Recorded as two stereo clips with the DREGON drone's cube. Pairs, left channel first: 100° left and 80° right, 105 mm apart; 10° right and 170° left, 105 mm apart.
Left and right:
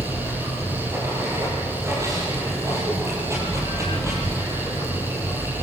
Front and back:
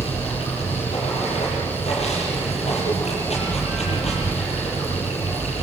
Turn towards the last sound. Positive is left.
turn(degrees=-15)